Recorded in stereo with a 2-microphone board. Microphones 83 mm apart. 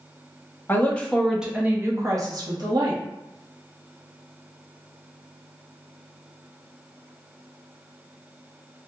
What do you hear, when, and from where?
0.7 s a woman speaking: 25° left (ahead or behind), 1.0 m; by 3.0 s 65° right (ahead or behind), 1.4 m